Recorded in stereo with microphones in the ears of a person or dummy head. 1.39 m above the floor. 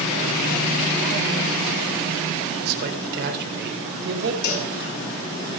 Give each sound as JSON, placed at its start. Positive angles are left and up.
{"t": 2.6, "sound": "a man speaking", "side_deg": -55, "distance_m": 5.0}
{"t": 4.4, "sound": "a cowbell", "side_deg": 60, "distance_m": 6.5}